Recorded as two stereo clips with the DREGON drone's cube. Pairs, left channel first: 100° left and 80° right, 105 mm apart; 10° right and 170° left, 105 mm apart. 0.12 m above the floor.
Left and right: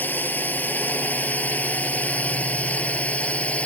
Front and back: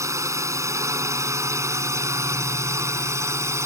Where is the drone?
155° left; by 3.7 s 165° left.